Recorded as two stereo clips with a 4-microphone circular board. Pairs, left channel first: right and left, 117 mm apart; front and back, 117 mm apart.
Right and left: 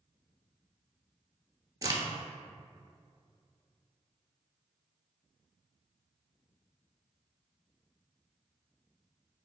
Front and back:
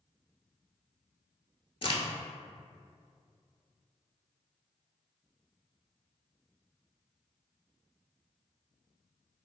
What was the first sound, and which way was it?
A crack, 35° left.